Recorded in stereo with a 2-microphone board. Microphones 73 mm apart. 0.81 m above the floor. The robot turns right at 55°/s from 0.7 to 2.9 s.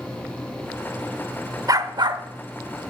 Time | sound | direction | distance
1.7 | a dog barking | 125° right | 1.0 m